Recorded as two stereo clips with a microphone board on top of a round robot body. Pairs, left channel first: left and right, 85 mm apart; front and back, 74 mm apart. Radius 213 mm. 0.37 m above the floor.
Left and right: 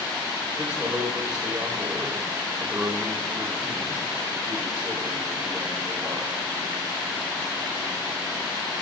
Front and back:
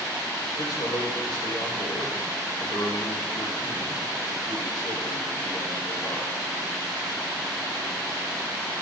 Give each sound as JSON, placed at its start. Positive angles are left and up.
{"t": 0.6, "sound": "a man speaking", "azimuth_deg": -15, "distance_m": 6.5}